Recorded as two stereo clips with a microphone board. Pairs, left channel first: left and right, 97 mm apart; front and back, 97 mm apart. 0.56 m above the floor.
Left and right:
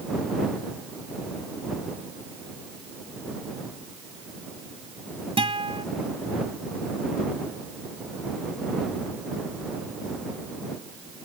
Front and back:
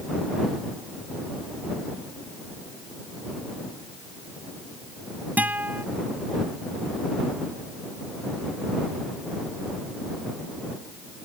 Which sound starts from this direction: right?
A guitar, at 5.4 s.